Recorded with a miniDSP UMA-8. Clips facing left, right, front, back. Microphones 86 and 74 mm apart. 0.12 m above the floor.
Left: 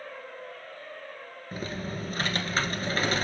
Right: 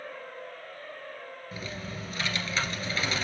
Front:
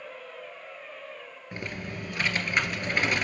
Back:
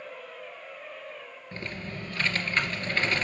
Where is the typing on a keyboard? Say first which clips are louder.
Left 6 dB, front 1 dB; 70° left, 1.8 m.